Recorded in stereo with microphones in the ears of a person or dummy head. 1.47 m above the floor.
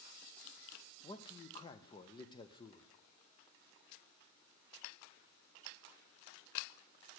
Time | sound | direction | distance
1.0 | a man speaking | 20° left (ahead or behind) | 0.6 m